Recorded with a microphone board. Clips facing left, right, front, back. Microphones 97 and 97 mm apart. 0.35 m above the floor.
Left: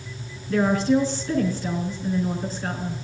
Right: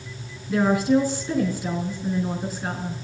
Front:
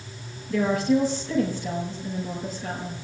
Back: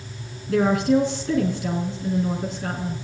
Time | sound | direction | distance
0.5 | a woman speaking | 170° right | 4 m